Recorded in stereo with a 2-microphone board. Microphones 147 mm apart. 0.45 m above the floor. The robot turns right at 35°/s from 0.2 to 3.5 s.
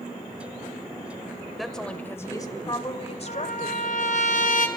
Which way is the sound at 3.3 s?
70° left (ahead or behind).